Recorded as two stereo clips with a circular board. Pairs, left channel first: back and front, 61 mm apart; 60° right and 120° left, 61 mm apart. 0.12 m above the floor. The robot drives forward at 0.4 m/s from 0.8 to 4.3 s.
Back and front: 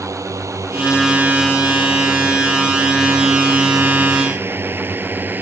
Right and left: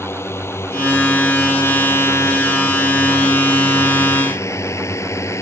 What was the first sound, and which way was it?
A drone, 20° right.